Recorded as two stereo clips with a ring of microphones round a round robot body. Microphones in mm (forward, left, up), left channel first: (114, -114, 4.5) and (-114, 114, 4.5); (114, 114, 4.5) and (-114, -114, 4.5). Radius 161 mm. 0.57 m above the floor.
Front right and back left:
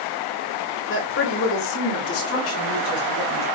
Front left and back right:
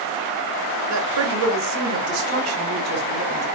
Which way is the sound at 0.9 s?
100° right.